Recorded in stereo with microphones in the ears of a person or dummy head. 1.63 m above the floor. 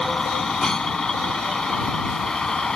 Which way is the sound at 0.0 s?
5° left (ahead or behind).